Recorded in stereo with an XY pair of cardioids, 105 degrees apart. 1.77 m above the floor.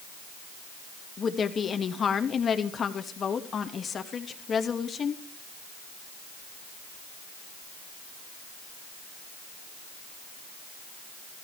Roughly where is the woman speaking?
Ahead left.